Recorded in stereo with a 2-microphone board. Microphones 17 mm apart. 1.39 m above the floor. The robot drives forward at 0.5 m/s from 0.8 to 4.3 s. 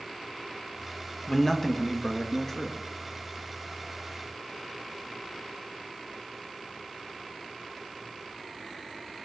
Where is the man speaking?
25° left (ahead or behind), 1.3 m; by 2.8 s 15° left (ahead or behind), 2.0 m.